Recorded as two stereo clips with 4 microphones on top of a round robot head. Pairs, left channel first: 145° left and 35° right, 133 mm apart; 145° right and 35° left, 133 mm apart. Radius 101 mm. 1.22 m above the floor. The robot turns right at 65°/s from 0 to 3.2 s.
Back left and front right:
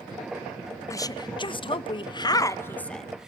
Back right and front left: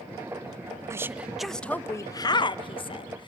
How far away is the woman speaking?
About 0.5 m.